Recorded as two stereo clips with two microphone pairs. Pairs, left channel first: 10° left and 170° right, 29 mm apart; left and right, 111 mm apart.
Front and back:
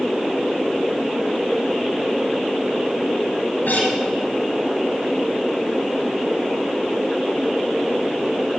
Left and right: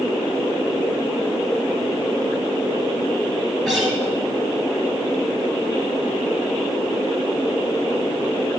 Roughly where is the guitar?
Ahead.